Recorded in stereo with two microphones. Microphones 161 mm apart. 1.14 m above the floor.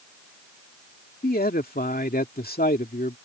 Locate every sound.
1.2 s a man speaking: 70° left (ahead or behind)